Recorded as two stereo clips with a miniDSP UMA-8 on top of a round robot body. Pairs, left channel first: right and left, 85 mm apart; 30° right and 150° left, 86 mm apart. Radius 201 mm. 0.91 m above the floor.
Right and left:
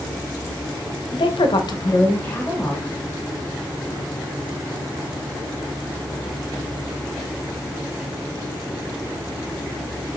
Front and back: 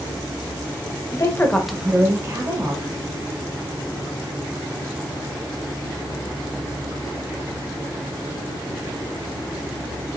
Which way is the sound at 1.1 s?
75° right.